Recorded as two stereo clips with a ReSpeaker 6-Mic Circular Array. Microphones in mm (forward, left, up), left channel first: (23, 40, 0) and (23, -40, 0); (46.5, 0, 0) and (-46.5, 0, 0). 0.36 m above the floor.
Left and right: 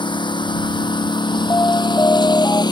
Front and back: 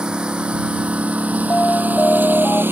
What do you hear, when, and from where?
0.0 s a lawn mower: 100° left; by 2.7 s 115° left
1.5 s an alarm: 65° left